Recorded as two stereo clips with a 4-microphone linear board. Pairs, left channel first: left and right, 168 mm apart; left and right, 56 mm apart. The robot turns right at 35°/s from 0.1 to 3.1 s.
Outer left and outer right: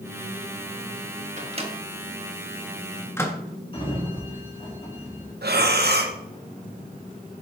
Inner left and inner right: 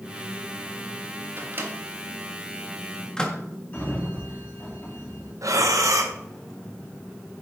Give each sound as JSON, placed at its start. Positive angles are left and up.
{"t": 1.4, "sound": "a microwave", "side_deg": -45, "distance_m": 1.4}
{"t": 3.7, "sound": "a sliding door", "side_deg": 30, "distance_m": 2.5}
{"t": 5.4, "sound": "breathing", "side_deg": -75, "distance_m": 1.1}